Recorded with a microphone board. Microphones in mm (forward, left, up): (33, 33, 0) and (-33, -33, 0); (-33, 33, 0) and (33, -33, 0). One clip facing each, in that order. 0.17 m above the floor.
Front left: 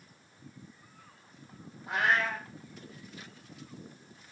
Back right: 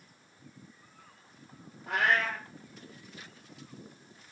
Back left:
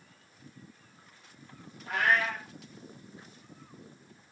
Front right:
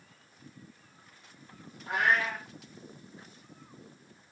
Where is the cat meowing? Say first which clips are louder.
Even, even; 115° right, 1.5 m.